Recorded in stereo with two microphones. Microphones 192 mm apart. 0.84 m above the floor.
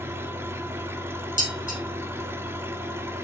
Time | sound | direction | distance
0.0 | an engine running | 10° right (ahead or behind) | 1.1 m
1.4 | dishes clattering | 45° left (ahead or behind) | 4 m